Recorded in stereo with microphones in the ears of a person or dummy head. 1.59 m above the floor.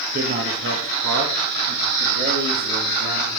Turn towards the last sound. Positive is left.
turn(degrees=-70)  # may be behind; listen again after turning